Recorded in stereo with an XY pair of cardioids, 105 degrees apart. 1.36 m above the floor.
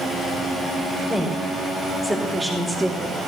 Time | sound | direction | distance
1.1 | a woman speaking | 5° left | 5.5 m